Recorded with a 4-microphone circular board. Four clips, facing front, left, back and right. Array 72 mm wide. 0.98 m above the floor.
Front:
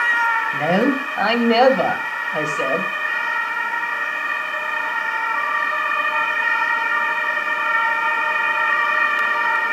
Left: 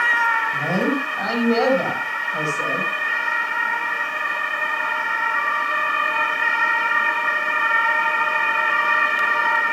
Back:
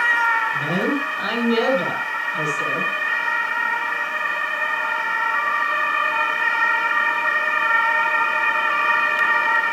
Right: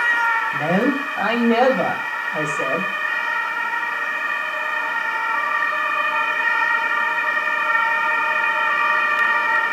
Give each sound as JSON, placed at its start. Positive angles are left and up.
{"t": 0.5, "sound": "a man speaking", "azimuth_deg": -20, "distance_m": 6.0}